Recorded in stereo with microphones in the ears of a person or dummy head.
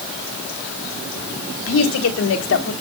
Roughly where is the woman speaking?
Left.